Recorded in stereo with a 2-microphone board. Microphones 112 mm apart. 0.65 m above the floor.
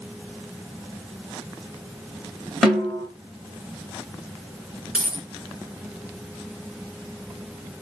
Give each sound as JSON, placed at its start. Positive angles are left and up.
{"t": 2.6, "sound": "a snare drum", "side_deg": 0, "distance_m": 1.5}
{"t": 4.9, "sound": "a dropped coin", "side_deg": -10, "distance_m": 2.0}